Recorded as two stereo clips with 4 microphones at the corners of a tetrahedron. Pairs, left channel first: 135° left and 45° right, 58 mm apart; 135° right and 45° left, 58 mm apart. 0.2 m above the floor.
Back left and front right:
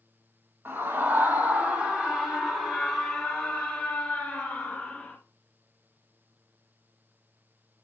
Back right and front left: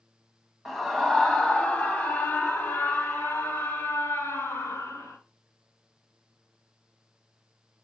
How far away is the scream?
About 1.5 m.